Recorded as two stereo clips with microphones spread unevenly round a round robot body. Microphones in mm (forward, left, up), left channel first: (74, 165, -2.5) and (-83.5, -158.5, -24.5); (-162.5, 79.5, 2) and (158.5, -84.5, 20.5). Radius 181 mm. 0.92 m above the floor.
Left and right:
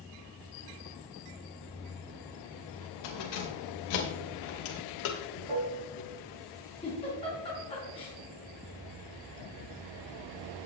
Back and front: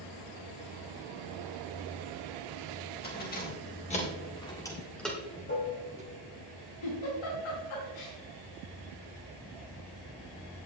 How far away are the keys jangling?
About 3.5 m.